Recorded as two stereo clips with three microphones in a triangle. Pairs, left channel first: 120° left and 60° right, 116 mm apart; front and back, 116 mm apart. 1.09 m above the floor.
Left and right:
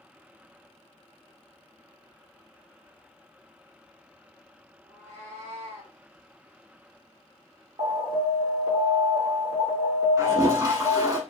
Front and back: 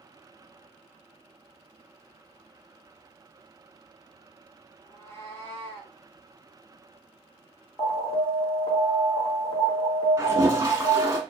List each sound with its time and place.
4.8 s a cat meowing: 65° right, 3 m; by 6.0 s 75° right, 1.9 m
7.8 s an alarm: 65° right, 2.5 m
10.2 s a toilet flushing: 115° right, 1.1 m